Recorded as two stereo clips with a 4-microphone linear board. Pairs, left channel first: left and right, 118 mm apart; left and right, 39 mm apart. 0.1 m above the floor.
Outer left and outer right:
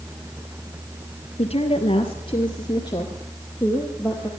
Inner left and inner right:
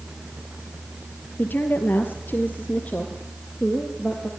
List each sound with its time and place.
1.4 s a woman speaking: 55° left (ahead or behind), 2.5 m; by 4.3 s 15° left (ahead or behind), 3.5 m